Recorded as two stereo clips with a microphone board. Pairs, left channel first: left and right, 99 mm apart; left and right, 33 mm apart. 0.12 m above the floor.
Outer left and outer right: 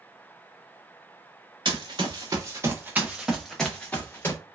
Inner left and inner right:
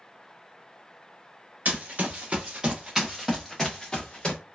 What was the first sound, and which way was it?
Running footsteps, 55° right (ahead or behind).